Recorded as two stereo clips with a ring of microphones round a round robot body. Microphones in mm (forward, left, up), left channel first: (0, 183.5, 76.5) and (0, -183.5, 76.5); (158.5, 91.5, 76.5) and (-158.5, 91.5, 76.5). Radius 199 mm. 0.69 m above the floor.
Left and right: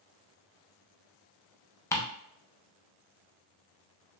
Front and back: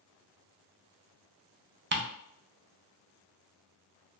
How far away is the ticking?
About 0.6 m.